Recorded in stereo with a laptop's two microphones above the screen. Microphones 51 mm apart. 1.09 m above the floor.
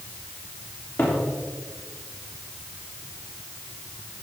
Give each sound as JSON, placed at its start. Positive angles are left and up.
{"t": 1.0, "sound": "a cupboard door", "side_deg": 45, "distance_m": 3.0}